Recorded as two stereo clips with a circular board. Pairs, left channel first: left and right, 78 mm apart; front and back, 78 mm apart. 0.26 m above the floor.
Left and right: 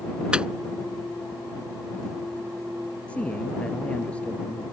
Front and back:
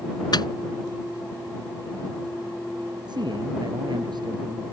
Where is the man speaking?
165° left.